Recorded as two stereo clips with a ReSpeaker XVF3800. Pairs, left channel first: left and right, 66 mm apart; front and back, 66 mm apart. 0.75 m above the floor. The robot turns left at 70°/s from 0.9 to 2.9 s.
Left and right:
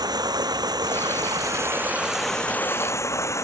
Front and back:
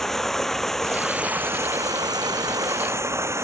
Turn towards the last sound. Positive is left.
turn(degrees=135)